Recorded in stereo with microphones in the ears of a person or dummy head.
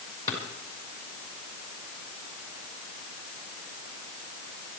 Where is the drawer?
15° left (ahead or behind), 5.5 m.